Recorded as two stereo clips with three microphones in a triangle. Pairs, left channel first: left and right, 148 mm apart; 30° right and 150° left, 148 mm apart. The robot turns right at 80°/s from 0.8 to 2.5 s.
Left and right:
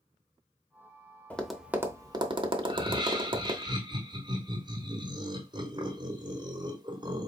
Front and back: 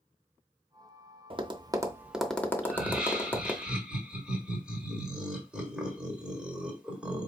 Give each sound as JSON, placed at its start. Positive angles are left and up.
{"t": 1.3, "sound": "tapping", "azimuth_deg": 165, "distance_m": 0.6}
{"t": 2.6, "sound": "laughter", "azimuth_deg": -130, "distance_m": 1.4}